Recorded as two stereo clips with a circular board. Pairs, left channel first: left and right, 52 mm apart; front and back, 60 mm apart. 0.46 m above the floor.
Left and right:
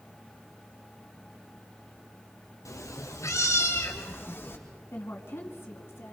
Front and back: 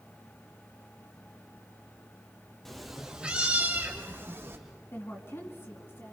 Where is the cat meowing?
85° left, 2.5 m; by 4.6 s 135° left, 4 m.